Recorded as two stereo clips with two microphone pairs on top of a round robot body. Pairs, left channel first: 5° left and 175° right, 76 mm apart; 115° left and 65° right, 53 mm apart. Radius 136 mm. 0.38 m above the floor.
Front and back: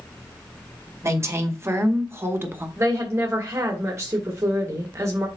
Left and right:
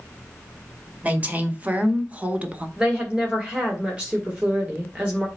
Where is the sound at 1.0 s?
125° right, 2.5 m.